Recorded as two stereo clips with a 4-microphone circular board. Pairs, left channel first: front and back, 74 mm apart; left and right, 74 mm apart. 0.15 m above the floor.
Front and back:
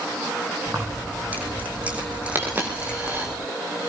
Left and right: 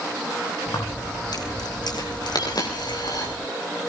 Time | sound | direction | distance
0.7 | keys jangling | 120° left | 4.5 m
2.4 | a dropped coin | 115° left | 6 m